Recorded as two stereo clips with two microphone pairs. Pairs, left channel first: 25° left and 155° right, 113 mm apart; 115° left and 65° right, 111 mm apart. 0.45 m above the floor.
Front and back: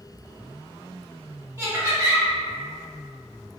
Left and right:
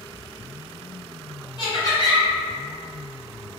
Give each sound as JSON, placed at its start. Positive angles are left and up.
{"t": 1.6, "sound": "laughter", "azimuth_deg": 140, "distance_m": 1.8}